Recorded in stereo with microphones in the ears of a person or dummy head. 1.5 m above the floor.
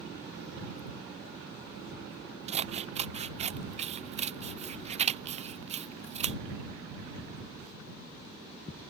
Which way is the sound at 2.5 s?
35° right (ahead or behind).